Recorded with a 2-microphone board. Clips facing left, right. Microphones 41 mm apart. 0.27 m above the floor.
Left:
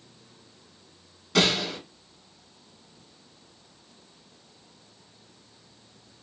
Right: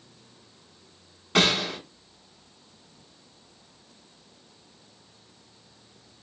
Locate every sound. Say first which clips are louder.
1.4 s a gunshot: right 1 dB; 35° right (ahead or behind), 1.2 m